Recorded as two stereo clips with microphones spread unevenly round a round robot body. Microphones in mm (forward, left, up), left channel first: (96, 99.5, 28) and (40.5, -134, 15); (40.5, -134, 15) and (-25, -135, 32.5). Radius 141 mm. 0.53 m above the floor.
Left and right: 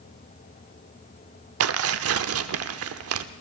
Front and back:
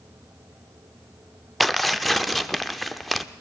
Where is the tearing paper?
85° right, 0.7 m.